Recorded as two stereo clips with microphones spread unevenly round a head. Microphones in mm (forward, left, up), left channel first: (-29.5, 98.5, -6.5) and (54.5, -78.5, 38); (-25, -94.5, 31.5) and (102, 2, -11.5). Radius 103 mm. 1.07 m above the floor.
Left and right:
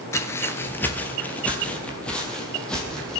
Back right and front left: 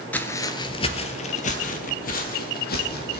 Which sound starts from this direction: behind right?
Footsteps, at 0.1 s.